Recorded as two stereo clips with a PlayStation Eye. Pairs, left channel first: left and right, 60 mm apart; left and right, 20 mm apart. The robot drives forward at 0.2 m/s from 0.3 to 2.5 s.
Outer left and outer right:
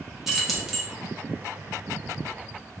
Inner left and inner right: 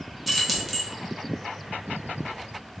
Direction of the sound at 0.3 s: 5° right (ahead or behind).